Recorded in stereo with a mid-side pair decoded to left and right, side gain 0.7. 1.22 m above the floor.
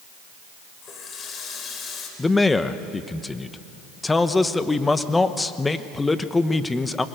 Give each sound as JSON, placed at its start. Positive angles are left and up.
{"t": 0.8, "sound": "a running tap", "azimuth_deg": 35, "distance_m": 4.0}
{"t": 2.2, "sound": "a man speaking", "azimuth_deg": 15, "distance_m": 1.1}